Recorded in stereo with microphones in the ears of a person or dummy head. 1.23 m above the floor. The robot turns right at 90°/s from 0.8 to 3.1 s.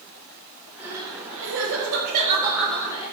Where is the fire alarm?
No fire alarm in this recording.